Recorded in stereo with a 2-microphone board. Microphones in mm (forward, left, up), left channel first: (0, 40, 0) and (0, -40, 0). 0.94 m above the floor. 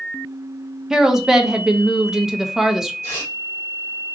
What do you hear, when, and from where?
0.9 s a woman speaking: 5° right (ahead or behind), 0.5 m
3.0 s tearing paper: 30° left (ahead or behind), 1.3 m